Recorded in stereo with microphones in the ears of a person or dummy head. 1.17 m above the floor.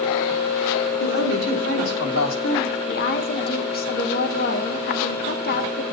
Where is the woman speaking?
45° left (ahead or behind), 0.8 m.